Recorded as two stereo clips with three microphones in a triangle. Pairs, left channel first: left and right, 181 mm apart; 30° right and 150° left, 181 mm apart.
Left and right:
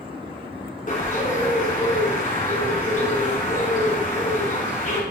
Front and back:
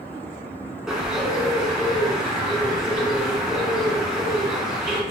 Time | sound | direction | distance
0.9 | a bird | 65° left | 2.5 m